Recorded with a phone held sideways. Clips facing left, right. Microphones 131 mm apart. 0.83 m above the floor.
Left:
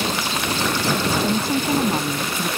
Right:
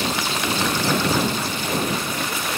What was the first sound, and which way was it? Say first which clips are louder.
A woman speaking: left 4 dB; 50° left (ahead or behind).